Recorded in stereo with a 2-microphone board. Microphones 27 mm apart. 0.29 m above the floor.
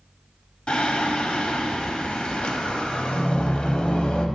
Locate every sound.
0.7 s singing: 45° left (ahead or behind), 0.6 m